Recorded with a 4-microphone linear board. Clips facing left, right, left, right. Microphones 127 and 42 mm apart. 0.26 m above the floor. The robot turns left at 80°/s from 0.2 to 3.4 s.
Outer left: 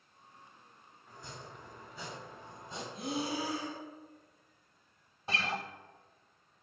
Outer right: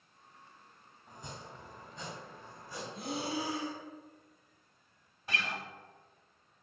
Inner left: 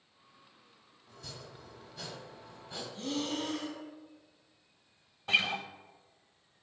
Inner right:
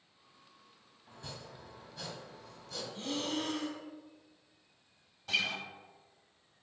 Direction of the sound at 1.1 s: 20° right (ahead or behind).